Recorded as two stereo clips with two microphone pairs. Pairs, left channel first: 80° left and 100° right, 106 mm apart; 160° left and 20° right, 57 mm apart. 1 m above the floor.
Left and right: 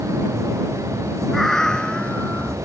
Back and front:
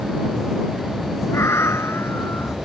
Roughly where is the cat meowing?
Behind.